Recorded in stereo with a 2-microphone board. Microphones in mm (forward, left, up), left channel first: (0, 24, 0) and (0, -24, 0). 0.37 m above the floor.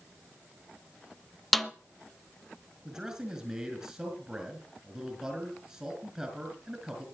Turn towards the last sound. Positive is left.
turn(degrees=-20)  # may be behind; listen again after turning